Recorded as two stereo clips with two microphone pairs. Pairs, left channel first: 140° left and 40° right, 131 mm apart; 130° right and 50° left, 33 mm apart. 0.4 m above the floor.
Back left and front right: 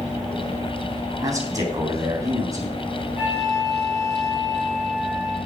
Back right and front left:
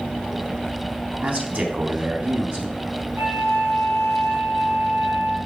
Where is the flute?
35° left, 4 m.